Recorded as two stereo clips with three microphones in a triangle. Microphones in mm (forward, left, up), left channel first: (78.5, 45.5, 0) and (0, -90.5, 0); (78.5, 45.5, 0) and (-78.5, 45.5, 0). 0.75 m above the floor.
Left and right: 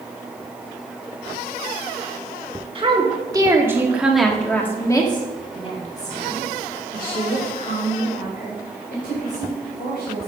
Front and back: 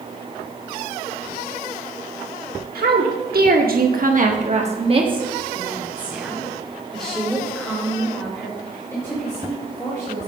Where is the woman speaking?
175° right, 1.4 m; by 10.3 s 70° left, 3.5 m.